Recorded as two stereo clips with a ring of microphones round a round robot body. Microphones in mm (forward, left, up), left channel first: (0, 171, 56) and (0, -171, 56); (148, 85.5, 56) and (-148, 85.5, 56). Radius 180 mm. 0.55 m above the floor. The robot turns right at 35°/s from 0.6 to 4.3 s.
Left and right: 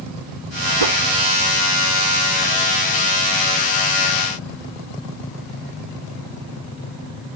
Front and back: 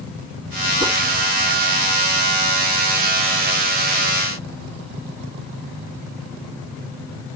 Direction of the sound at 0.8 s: 100° right.